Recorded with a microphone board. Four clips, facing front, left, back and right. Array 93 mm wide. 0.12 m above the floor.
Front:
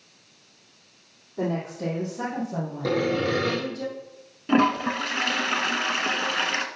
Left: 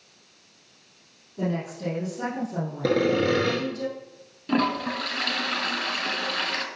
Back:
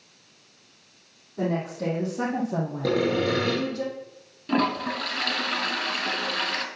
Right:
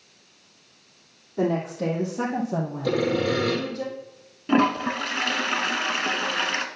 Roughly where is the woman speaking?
Right.